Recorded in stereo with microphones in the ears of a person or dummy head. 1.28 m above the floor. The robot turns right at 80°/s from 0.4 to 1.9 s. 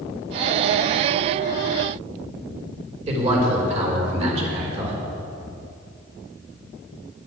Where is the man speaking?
45° right (ahead or behind), 4.5 m.